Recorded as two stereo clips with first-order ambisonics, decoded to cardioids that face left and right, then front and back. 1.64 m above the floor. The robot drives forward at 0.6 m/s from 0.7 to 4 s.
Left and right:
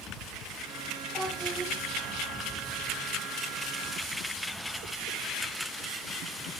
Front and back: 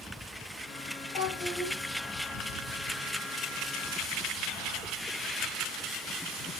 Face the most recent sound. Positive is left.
turn(degrees=-10)